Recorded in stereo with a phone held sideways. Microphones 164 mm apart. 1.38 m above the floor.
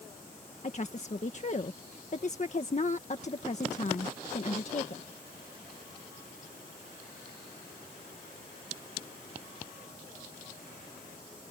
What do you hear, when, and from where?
0.6 s a woman speaking: 45° left (ahead or behind)